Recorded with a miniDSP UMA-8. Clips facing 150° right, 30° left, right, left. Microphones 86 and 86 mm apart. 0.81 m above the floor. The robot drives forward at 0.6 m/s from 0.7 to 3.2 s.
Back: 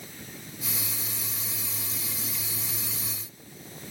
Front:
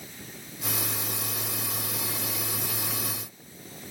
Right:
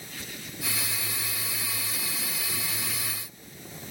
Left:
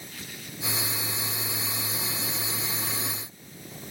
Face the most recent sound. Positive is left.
No sound to turn to.